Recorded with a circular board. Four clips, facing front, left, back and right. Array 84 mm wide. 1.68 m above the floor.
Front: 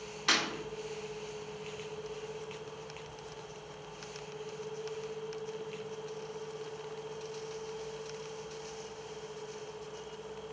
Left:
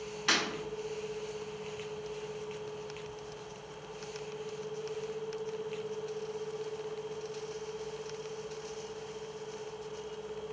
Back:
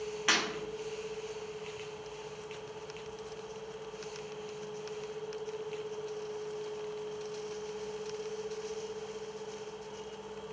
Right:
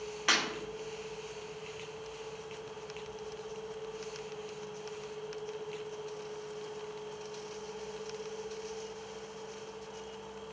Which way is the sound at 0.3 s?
155° right.